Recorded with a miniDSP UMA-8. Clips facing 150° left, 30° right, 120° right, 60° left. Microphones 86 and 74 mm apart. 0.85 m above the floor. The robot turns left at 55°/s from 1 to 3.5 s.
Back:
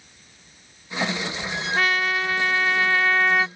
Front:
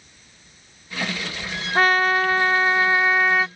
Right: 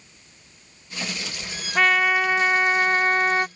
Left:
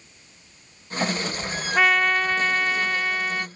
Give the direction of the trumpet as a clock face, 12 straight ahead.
1 o'clock.